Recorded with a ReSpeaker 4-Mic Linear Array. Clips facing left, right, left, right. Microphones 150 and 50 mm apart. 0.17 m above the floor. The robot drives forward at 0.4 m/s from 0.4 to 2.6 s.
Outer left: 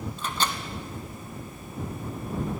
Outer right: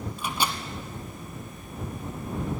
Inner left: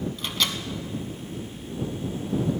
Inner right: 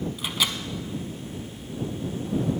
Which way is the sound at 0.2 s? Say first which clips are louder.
Outer right 1 dB, inner right 1 dB; 10° right (ahead or behind).